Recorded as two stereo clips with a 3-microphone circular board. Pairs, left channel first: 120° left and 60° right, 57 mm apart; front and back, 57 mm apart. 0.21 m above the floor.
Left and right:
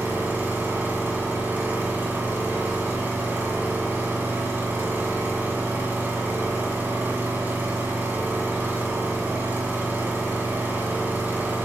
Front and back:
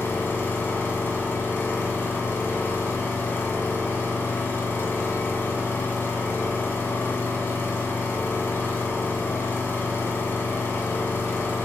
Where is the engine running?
25° right, 1.8 m.